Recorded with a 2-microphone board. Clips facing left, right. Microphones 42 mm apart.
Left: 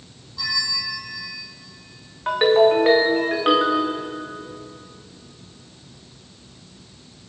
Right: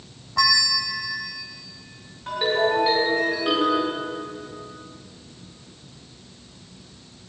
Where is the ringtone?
50° left (ahead or behind), 4 m.